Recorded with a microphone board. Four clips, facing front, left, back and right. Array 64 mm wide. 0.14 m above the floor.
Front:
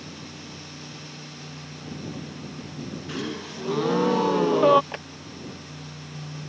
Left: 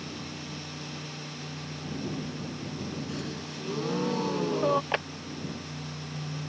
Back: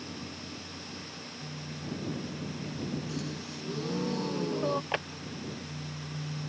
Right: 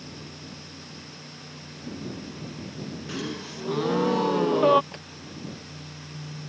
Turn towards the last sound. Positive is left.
turn(degrees=110)